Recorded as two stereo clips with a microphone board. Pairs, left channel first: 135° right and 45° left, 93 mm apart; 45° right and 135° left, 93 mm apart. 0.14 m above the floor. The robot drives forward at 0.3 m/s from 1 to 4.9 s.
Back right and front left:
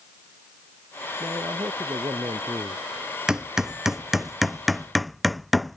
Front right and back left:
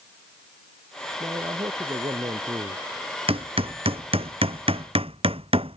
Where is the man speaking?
95° left; by 2.8 s 100° left.